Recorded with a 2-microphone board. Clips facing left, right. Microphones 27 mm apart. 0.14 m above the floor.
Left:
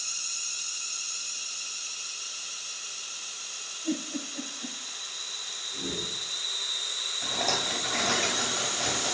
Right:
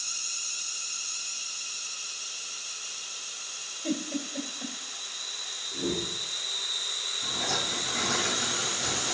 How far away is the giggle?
About 2 m.